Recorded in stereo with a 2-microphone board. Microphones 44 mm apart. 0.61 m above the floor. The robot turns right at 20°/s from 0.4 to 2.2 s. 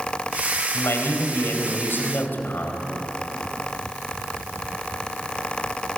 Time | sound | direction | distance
0.7 | a man speaking | 75° left (ahead or behind) | 3.5 m